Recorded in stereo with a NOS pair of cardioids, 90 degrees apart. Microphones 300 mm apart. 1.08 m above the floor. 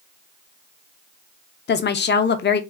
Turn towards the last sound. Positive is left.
turn(degrees=40)